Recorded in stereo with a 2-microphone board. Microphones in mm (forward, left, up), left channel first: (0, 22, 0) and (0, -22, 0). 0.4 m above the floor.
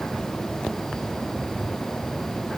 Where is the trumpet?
No trumpet in this recording.